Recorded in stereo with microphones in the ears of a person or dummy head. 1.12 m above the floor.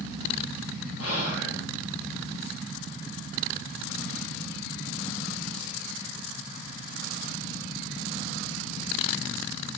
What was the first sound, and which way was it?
Whispering, 80° left.